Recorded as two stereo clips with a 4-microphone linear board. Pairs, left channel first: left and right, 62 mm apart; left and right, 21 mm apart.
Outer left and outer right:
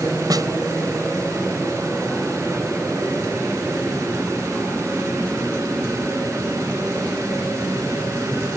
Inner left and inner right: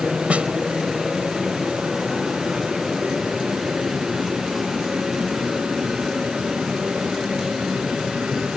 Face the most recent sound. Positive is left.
turn(degrees=-75)  # may be behind; listen again after turning